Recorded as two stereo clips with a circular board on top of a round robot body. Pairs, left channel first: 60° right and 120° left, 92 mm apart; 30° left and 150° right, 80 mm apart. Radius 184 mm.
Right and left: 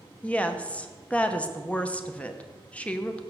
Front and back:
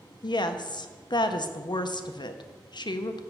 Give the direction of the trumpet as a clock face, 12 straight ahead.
No trumpet in this recording.